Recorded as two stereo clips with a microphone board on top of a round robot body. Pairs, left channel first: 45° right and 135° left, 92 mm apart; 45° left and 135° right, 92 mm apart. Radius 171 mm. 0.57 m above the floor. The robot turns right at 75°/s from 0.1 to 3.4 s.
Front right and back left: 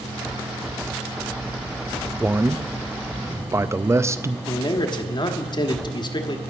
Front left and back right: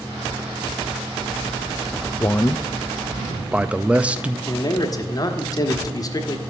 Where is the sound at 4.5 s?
5° right, 1.6 m.